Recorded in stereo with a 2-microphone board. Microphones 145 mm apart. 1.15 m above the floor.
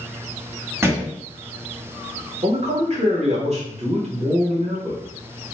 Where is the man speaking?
55° right (ahead or behind), 1.4 m.